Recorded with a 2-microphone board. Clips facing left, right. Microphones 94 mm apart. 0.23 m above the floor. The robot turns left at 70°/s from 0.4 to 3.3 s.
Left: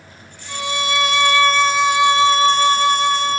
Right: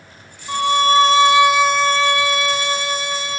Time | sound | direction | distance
0.5 | a violin | 95° right | 1.6 m